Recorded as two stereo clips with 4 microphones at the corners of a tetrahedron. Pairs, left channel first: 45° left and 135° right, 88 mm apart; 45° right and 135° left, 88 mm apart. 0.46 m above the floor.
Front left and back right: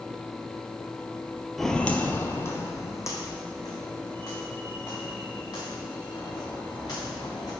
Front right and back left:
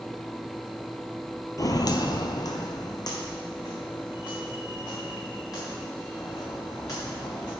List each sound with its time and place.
1.6 s footsteps: 40° right, 0.5 m; by 7.5 s straight ahead, 4.5 m